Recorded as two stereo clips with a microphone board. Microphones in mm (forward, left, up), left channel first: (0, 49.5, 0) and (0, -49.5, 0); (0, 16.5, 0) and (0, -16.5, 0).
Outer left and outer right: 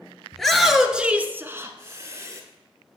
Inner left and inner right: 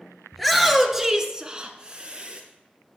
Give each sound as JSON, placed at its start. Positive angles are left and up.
{"t": 0.3, "sound": "a shout", "side_deg": 5, "distance_m": 2.0}